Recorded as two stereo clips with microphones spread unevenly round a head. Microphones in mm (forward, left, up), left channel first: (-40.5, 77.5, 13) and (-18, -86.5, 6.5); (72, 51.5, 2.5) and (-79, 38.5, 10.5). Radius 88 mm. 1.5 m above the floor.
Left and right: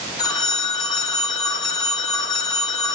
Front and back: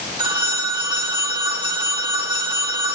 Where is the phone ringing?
150° left, 0.9 m.